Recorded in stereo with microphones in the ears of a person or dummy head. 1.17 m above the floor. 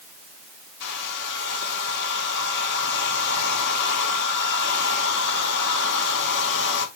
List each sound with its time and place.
0.8 s a hair dryer: 65° left (ahead or behind), 2.5 m